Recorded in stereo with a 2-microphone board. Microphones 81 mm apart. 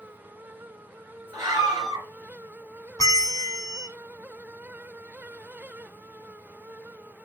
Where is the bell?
50° left (ahead or behind), 0.8 m.